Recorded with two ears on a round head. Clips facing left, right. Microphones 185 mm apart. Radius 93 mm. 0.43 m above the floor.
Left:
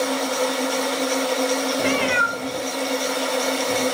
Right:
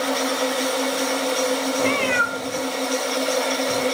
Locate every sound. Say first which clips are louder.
1.8 s a cat meowing: even; 10° left (ahead or behind), 1.0 m; by 3.9 s 10° right (ahead or behind), 2.5 m